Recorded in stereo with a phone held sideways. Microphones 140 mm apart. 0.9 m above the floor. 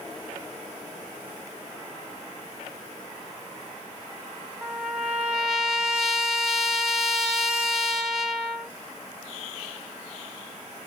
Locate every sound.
4.6 s a trumpet: 5° right (ahead or behind), 0.9 m